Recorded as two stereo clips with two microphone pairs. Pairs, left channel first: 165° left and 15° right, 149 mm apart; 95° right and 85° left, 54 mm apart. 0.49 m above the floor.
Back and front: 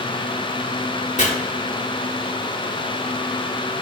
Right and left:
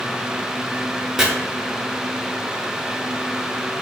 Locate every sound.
1.2 s chopping: 165° left, 0.5 m